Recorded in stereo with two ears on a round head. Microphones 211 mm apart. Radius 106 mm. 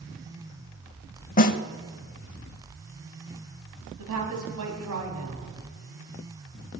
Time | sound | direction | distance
1.4 | a snare drum | 40° left (ahead or behind) | 0.8 m
4.0 | a woman speaking | 75° right (ahead or behind) | 4.5 m